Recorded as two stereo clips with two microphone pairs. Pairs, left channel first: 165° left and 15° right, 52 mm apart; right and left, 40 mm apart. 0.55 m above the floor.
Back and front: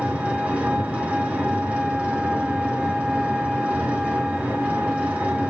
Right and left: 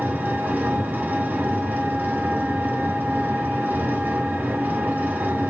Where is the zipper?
No zipper in this recording.